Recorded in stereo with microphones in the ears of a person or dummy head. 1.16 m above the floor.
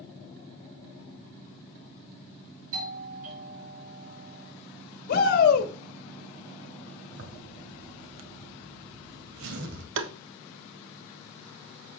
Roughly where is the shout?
Left.